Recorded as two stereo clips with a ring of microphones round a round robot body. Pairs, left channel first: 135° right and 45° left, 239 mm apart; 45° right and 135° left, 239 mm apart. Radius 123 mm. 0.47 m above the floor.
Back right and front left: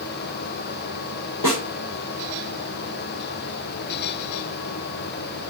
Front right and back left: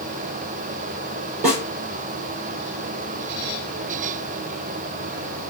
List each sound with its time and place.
1.4 s a snare drum: 160° right, 2.5 m